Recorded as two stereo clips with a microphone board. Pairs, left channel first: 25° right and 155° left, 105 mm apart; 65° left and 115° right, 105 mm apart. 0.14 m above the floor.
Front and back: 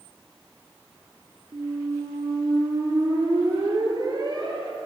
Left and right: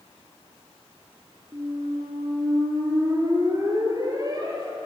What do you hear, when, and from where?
1.5 s a squeak: 160° right, 0.9 m